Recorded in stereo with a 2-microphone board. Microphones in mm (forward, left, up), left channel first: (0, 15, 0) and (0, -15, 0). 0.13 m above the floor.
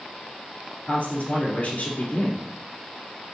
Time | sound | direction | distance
0.9 | a man speaking | 45° left (ahead or behind) | 2.0 m